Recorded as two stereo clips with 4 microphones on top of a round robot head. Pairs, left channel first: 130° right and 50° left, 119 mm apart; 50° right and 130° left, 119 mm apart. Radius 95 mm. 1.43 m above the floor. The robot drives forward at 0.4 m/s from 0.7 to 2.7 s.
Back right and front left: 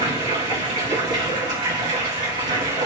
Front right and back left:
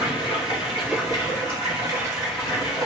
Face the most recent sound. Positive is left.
turn(degrees=80)